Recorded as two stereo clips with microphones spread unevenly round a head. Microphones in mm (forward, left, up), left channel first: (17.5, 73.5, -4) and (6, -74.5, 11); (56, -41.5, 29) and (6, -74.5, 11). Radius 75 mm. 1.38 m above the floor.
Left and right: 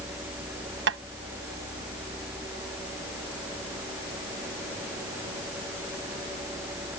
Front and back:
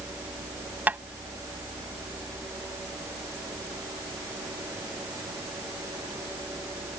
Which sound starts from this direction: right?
Tapping, at 0.9 s.